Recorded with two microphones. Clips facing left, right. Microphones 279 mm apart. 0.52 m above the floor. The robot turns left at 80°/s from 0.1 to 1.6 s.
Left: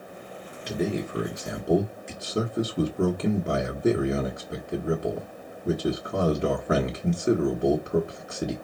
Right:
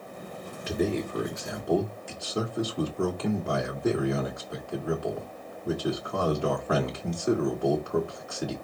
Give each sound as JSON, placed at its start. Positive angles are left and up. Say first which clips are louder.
{"t": 0.7, "sound": "a man speaking", "louder": "even", "side_deg": -5, "distance_m": 1.0}